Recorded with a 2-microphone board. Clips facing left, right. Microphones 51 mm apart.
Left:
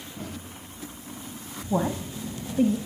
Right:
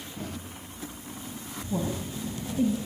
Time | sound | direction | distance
1.7 | a woman speaking | 70° left (ahead or behind) | 2.5 m